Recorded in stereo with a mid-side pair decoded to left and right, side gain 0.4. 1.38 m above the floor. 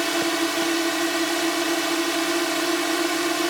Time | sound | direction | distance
0.0 | a drone | 5° right | ?